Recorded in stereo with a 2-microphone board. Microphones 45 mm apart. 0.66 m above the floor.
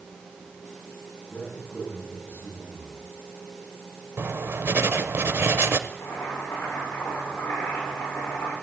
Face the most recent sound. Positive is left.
turn(degrees=75)  # may be behind; listen again after turning